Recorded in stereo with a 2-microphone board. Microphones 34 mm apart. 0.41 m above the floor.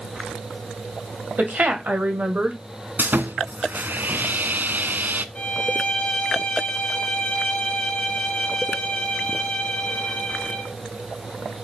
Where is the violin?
35° left (ahead or behind), 3 m.